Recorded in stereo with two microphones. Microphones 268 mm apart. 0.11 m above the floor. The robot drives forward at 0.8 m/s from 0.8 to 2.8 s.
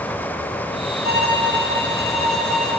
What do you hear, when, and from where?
1.0 s a violin: 40° right (ahead or behind), 1.5 m; by 2.7 s 35° right (ahead or behind), 1.6 m